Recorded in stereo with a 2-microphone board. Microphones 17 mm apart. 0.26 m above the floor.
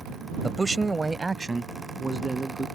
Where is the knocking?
I don't hear knocking.